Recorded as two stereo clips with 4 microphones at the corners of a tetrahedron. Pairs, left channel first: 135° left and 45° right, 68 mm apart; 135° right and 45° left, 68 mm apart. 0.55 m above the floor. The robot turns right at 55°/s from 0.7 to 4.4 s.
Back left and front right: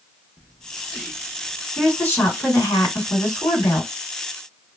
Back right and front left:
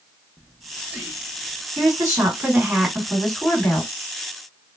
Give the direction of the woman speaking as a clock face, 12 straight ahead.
10 o'clock.